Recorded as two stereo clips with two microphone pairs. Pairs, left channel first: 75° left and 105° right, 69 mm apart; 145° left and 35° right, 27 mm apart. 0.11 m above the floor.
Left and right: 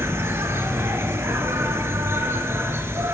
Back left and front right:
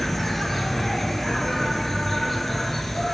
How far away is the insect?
About 0.8 m.